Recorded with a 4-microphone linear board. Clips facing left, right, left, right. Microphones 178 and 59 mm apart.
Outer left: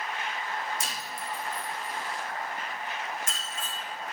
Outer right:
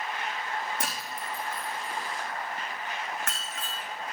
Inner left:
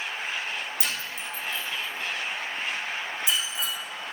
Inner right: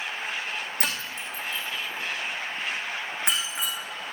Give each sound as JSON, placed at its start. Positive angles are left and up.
{"t": 0.8, "sound": "breaking glass", "side_deg": -60, "distance_m": 3.0}